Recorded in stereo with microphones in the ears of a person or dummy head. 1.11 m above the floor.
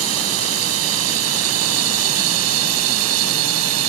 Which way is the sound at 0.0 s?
85° right.